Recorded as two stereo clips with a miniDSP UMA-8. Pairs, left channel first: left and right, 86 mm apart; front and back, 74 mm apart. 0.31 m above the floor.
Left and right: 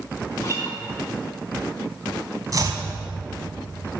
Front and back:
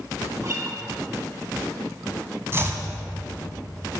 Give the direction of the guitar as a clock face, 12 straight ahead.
7 o'clock.